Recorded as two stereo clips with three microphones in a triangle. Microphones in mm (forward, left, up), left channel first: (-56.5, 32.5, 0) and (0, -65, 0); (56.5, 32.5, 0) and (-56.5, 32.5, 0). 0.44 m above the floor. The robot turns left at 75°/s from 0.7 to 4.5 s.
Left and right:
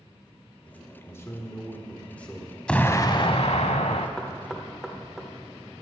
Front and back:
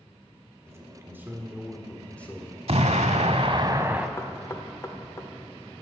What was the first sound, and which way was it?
A man speaking, 175° left.